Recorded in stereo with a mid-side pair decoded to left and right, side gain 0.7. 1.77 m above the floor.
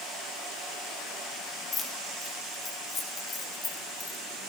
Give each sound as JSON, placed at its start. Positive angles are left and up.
{"t": 1.7, "sound": "keys jangling", "azimuth_deg": 35, "distance_m": 2.5}